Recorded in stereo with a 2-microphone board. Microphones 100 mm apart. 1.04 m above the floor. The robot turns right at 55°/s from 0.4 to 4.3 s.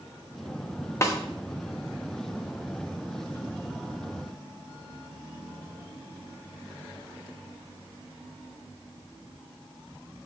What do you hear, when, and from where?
1.0 s a snare drum: 30° left (ahead or behind), 1.0 m; by 1.2 s 35° left (ahead or behind), 1.0 m